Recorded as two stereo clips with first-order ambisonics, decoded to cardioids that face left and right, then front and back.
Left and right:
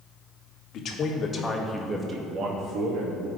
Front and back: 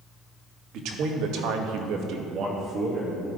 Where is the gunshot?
I don't hear a gunshot.